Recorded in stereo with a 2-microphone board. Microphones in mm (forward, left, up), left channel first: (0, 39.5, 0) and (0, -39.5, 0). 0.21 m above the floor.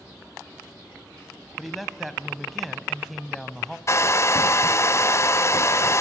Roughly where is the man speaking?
Centre.